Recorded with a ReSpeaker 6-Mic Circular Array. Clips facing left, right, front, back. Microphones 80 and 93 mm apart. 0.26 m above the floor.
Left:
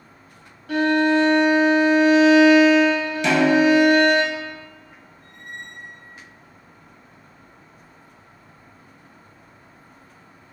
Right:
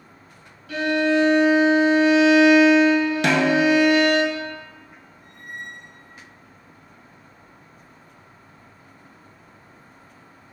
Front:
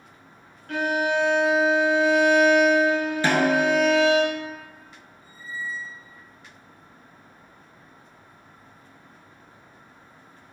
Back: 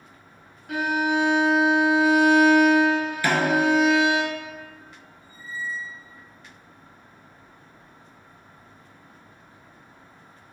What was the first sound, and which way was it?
A violin, 100° left.